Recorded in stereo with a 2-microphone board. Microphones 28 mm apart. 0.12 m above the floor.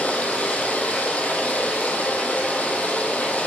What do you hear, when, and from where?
0.0 s running water: 60° left (ahead or behind), 1.5 m